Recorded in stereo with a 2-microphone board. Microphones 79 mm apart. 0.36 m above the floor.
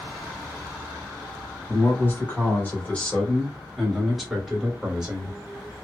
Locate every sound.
1.7 s a man speaking: 30° left (ahead or behind), 1.7 m; by 5.4 s 20° right (ahead or behind), 1.5 m